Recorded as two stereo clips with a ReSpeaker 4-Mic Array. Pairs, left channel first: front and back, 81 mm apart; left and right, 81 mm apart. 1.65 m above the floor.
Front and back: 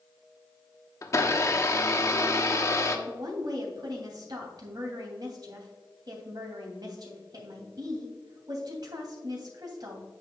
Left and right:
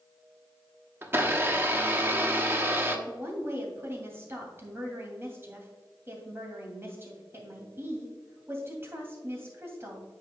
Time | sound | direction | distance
1.0 | a blender | 35° right | 0.9 m
3.1 | a woman speaking | 150° right | 2.5 m